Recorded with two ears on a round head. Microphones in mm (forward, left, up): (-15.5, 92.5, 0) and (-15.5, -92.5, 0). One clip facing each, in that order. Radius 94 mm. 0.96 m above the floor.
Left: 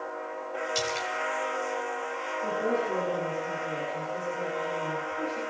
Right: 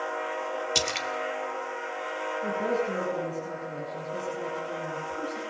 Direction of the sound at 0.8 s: 70° right (ahead or behind).